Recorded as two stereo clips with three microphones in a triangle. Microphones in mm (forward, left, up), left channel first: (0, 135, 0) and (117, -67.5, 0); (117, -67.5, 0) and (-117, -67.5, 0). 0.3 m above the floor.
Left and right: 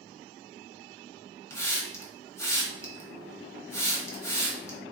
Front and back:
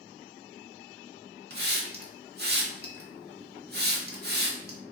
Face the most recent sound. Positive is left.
turn(degrees=-170)